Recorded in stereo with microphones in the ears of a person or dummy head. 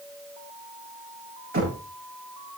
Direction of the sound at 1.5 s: 45° right (ahead or behind).